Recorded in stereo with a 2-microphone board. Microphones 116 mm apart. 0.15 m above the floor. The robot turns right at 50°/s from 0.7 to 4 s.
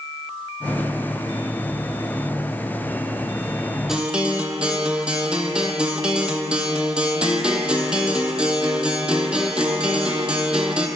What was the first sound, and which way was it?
A guitar, 5° right (ahead or behind).